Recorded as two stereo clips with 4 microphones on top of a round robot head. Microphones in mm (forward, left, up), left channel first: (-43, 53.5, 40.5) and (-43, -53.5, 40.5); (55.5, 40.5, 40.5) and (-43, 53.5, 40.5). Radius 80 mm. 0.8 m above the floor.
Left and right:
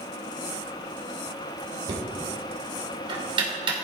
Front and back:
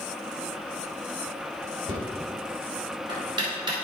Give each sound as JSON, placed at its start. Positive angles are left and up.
{"t": 1.9, "sound": "knocking", "azimuth_deg": -135, "distance_m": 3.0}